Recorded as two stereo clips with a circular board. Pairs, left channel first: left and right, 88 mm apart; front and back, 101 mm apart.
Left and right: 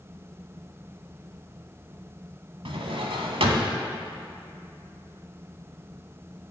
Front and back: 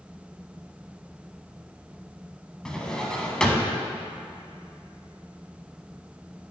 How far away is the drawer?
About 1.0 m.